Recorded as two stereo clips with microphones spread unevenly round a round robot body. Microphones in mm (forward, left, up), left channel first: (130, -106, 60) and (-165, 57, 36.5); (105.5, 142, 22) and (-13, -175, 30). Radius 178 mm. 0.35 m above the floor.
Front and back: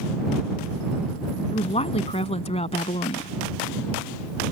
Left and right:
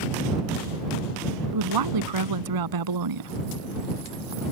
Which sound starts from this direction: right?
A woman speaking, at 1.5 s.